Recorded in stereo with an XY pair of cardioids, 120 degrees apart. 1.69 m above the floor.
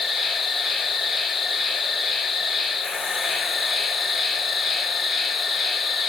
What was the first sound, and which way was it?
An insect, 30° left.